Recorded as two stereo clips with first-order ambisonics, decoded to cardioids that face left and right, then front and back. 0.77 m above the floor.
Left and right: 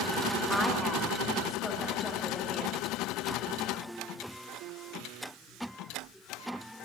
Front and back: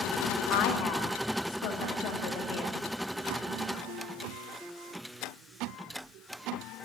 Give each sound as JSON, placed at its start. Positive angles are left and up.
{"t": 0.5, "sound": "a woman speaking", "azimuth_deg": 0, "distance_m": 1.5}